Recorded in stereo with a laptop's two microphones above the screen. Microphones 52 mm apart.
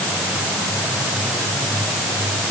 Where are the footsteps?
No footsteps in this recording.